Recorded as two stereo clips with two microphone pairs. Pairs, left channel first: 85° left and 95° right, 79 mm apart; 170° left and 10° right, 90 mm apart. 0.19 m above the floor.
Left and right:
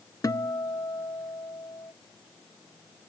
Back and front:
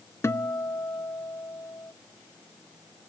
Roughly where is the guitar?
Left.